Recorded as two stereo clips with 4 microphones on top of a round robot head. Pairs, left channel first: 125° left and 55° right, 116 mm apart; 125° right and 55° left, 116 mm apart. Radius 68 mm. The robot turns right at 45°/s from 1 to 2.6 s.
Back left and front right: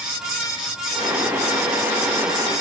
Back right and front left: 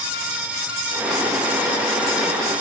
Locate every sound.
Only background noise.